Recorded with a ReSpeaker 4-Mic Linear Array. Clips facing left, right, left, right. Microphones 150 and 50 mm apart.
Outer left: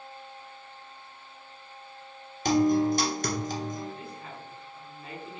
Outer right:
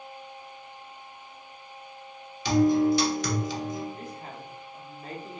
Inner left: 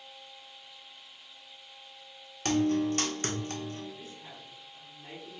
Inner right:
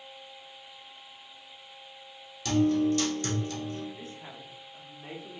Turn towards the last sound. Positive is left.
turn(degrees=-40)  # may be behind; listen again after turning